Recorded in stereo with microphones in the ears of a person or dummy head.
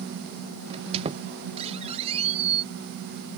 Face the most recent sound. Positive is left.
turn(degrees=-35)  # may be behind; listen again after turning